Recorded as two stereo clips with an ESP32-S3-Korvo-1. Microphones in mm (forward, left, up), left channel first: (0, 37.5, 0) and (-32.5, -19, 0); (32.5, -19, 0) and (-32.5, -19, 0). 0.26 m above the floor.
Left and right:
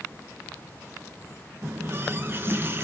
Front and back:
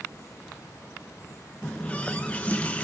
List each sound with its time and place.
1.6 s a running tap: 65° right, 1.9 m